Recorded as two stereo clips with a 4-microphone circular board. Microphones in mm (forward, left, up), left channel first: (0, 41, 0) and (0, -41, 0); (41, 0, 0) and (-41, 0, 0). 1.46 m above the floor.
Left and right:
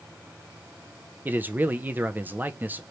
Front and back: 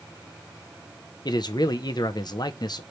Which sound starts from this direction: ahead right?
A man speaking, at 1.2 s.